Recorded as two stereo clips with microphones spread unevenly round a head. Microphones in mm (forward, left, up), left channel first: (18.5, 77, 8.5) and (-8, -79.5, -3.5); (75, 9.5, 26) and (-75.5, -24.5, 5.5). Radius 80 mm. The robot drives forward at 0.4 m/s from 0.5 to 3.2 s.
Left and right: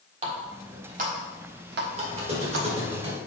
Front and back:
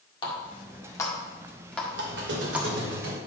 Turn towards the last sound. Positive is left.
turn(degrees=-160)